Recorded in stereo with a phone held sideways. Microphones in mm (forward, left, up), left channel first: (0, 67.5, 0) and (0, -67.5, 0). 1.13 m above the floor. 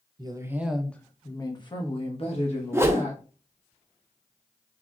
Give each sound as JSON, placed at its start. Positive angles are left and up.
{"t": 0.2, "sound": "a woman speaking", "side_deg": -35, "distance_m": 0.7}
{"t": 2.7, "sound": "a whoosh", "side_deg": -20, "distance_m": 0.5}